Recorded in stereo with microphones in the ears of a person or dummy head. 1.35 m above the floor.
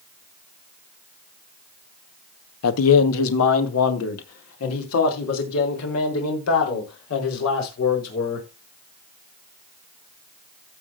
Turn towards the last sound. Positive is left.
turn(degrees=80)